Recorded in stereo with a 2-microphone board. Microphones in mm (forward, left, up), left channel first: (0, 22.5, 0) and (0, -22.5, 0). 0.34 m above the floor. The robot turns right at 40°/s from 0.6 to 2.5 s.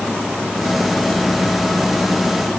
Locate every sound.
Only background noise.